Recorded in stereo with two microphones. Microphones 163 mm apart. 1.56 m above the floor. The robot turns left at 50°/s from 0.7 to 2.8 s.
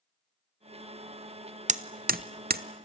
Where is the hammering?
45° right (ahead or behind), 0.8 m; by 2.9 s 60° right (ahead or behind), 0.8 m.